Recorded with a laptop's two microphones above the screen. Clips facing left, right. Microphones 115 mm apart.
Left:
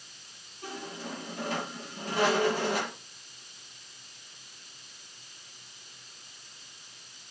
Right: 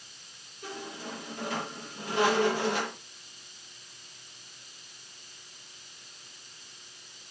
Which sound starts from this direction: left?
A squeak, at 0.6 s.